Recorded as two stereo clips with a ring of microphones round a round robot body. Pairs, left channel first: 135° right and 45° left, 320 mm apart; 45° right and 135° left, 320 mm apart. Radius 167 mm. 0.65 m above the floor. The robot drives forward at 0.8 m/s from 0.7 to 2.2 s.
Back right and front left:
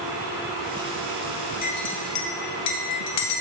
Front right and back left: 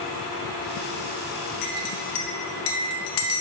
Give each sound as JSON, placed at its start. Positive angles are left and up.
{"t": 1.6, "sound": "a clink", "azimuth_deg": -70, "distance_m": 1.1}